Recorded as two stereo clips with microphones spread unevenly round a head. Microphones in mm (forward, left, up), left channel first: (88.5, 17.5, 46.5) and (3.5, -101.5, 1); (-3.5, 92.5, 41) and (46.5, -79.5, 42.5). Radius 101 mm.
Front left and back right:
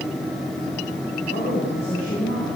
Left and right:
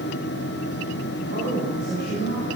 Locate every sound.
1.3 s a woman speaking: 110° left, 7.5 m; by 2.6 s 120° left, 9.5 m